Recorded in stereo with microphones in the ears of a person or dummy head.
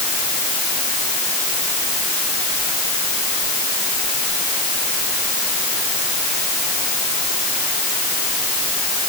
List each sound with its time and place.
Only background noise.